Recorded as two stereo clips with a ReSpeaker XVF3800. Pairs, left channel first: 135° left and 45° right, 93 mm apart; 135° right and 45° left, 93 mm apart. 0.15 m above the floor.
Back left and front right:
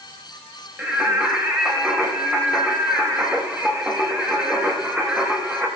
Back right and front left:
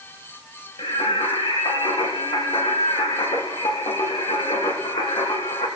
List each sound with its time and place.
0.8 s singing: 120° right, 5 m